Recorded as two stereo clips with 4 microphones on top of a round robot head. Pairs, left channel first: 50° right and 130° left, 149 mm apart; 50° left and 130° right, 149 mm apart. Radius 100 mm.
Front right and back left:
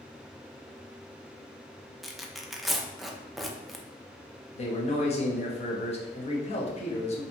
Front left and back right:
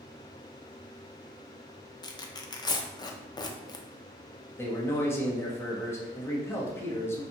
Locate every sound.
2.0 s tearing paper: 40° left, 0.6 m
4.5 s a man speaking: 20° right, 1.0 m